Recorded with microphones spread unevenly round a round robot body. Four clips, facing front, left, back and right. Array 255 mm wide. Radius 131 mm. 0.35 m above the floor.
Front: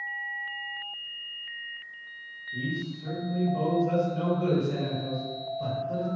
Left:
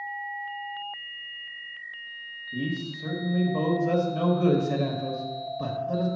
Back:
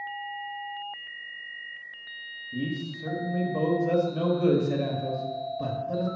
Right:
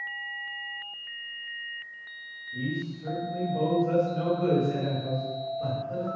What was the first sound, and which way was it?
A man speaking, 145° left.